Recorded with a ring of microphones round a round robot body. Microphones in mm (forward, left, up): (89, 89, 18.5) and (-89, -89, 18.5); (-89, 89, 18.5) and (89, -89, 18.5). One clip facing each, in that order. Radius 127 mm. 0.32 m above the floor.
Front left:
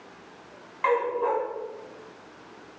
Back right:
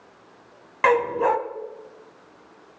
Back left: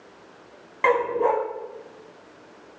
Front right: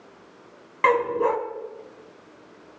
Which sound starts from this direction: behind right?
A dog barking, at 0.8 s.